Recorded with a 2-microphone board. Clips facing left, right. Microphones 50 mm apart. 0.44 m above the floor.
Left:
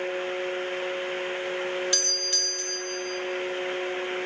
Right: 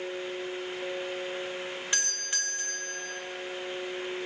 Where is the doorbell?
25° right (ahead or behind), 1.5 m.